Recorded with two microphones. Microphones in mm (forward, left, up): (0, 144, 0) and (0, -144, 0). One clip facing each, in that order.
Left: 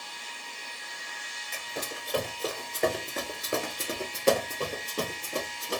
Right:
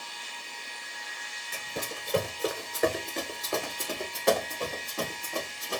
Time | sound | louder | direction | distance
1.5 | running footsteps | right 1 dB | 40° right (ahead or behind) | 1.0 m